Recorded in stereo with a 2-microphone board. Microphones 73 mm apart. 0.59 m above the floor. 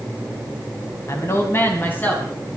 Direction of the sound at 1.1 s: 45° left (ahead or behind).